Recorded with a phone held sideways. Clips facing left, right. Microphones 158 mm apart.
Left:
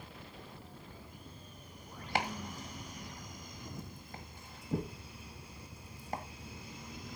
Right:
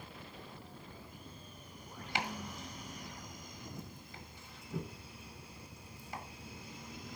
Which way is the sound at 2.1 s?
50° left (ahead or behind).